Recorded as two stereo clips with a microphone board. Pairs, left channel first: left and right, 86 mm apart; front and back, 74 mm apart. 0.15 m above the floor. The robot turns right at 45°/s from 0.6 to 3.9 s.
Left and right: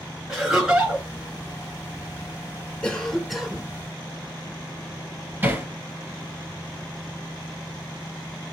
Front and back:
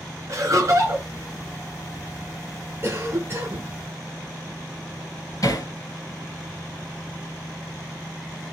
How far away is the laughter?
About 2 m.